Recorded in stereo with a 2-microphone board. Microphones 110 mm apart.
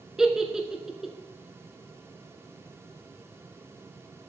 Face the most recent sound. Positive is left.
turn(degrees=-5)  # may be behind; listen again after turning